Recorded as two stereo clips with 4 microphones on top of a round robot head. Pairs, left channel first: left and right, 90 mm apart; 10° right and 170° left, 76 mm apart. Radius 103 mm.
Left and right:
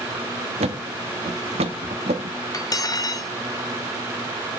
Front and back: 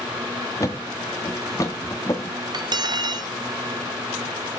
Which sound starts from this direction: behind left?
Cutlery clinking, at 2.5 s.